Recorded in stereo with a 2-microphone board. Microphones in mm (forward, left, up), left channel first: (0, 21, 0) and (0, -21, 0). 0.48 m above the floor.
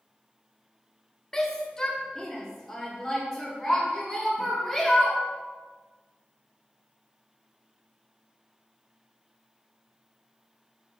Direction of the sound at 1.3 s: 15° left (ahead or behind).